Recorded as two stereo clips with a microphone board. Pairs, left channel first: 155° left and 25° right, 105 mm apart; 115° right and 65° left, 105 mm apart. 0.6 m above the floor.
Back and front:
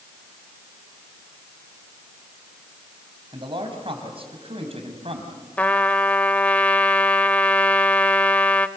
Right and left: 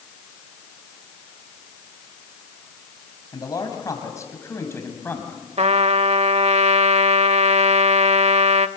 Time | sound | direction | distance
3.3 | a man speaking | 60° right | 4.5 m
5.6 | a trumpet | 80° left | 0.7 m